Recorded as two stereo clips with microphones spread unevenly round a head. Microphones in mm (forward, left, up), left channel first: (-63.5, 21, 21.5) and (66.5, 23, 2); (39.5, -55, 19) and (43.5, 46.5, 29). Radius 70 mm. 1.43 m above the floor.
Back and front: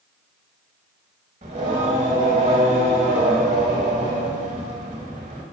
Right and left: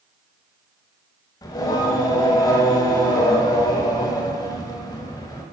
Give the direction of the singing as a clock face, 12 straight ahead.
1 o'clock.